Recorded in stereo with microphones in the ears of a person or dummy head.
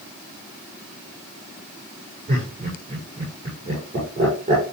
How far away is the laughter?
About 6.5 m.